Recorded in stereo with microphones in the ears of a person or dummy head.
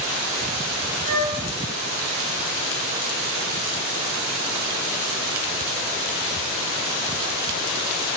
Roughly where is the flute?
Right.